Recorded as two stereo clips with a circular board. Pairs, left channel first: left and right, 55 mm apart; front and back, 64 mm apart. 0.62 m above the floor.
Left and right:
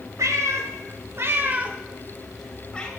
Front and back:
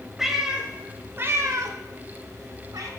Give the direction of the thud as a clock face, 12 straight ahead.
I don't hear a thud.